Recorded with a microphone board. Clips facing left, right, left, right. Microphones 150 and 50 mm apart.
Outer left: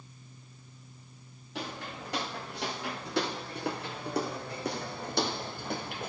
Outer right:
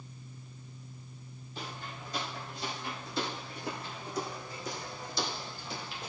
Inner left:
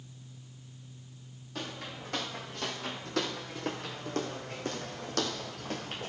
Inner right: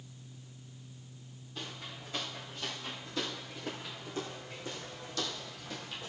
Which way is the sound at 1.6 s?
75° left (ahead or behind).